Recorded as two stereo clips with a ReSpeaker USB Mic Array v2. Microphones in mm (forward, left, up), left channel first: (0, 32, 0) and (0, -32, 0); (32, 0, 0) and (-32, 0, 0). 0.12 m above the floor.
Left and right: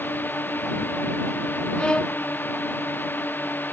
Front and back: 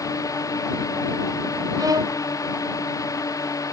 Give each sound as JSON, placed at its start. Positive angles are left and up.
{"t": 0.0, "sound": "a drone", "azimuth_deg": 30}
{"t": 1.8, "sound": "a violin", "azimuth_deg": 165}